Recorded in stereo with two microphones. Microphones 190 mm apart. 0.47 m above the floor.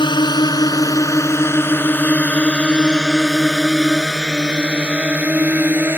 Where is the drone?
25° left (ahead or behind); by 6.0 s 10° right (ahead or behind).